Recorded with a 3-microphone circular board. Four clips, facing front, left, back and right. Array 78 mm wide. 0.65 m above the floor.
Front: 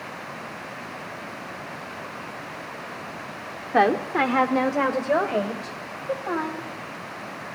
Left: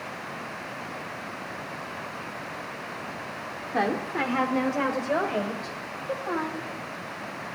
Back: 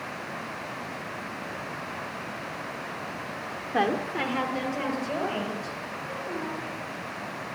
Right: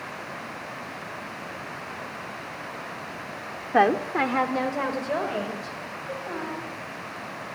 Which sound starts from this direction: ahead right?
A woman speaking, at 3.7 s.